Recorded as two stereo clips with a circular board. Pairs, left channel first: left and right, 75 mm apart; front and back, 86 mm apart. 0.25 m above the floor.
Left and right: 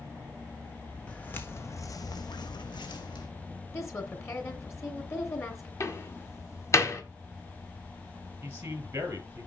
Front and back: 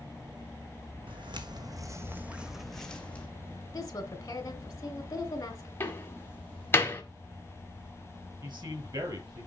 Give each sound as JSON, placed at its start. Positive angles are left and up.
{"t": 1.1, "sound": "footsteps", "azimuth_deg": 165, "distance_m": 1.2}
{"t": 3.7, "sound": "a woman speaking", "azimuth_deg": 45, "distance_m": 2.5}
{"t": 5.8, "sound": "a door slam", "azimuth_deg": 55, "distance_m": 1.6}
{"t": 8.4, "sound": "a man speaking", "azimuth_deg": -150, "distance_m": 4.5}